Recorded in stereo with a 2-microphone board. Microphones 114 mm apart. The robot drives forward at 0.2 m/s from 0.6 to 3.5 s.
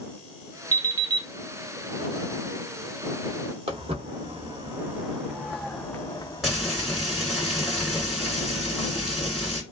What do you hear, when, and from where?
0.7 s an alarm clock: 35° right (ahead or behind), 0.7 m; by 1.3 s 30° right (ahead or behind), 0.8 m
3.7 s footsteps: 55° right (ahead or behind), 1.4 m; by 7.4 s 60° left (ahead or behind), 1.4 m
6.4 s frying: centre (ahead or behind), 1.8 m